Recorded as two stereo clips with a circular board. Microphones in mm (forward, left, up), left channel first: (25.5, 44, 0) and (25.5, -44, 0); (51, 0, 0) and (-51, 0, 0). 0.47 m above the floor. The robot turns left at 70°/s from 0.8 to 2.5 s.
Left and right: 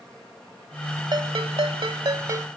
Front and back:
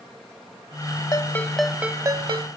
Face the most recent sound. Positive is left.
turn(degrees=-150)